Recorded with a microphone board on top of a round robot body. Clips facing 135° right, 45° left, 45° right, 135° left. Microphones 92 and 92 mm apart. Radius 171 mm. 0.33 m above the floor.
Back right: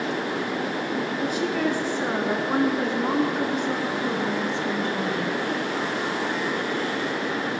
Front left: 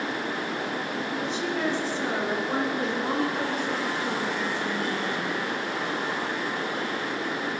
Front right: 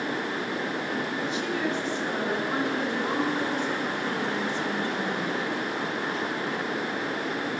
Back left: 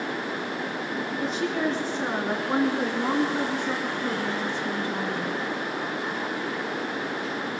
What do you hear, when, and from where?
1.2 s a woman speaking: 170° right, 7 m; by 5.4 s 150° right, 6 m